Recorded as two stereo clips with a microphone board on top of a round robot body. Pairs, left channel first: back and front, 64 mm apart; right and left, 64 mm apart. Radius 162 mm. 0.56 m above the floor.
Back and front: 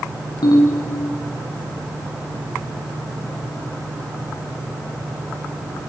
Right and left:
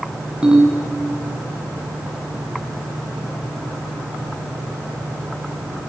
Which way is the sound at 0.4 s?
165° left.